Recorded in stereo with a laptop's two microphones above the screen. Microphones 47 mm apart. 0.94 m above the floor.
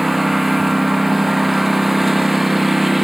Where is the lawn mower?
5° right (ahead or behind).